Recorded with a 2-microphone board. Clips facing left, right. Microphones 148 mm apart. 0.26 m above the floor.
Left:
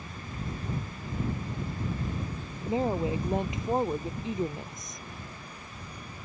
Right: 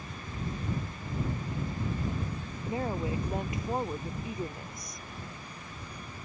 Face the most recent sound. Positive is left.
turn(degrees=20)  # may be behind; listen again after turning